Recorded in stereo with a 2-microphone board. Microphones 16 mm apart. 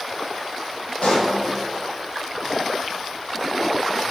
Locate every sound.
1.0 s a pop: 75° left (ahead or behind), 4 m